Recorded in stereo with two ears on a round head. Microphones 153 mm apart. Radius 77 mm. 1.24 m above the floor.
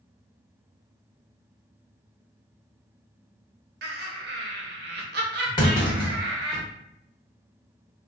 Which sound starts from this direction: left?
A clunk, at 5.6 s.